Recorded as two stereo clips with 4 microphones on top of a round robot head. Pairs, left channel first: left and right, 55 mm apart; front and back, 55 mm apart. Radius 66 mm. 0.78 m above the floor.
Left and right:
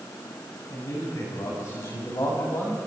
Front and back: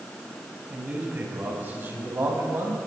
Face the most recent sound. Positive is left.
turn(degrees=135)